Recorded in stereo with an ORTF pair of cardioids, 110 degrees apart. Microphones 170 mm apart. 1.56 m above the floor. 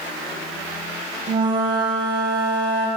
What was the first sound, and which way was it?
A flute, 30° right.